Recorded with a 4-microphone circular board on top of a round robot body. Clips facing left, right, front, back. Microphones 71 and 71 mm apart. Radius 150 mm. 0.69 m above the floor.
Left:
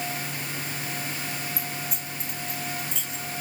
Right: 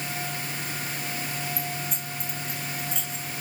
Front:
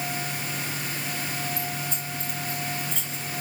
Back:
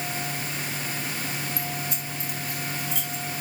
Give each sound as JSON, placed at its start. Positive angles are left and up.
{"t": 1.6, "sound": "keys jangling", "azimuth_deg": 175, "distance_m": 4.5}